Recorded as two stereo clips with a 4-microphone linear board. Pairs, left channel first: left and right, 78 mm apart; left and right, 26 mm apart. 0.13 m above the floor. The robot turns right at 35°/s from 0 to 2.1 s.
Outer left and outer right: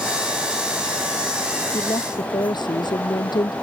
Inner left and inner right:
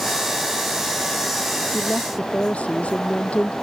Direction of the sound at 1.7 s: 55° left (ahead or behind).